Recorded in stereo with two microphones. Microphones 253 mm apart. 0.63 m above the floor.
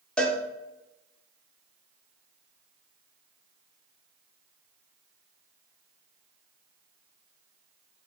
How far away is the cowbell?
About 0.6 m.